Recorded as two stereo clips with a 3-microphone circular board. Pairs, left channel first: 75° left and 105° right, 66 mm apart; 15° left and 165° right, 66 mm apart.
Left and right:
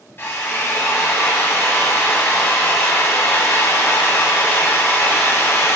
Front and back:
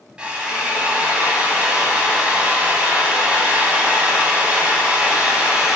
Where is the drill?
125° left, 1.9 m.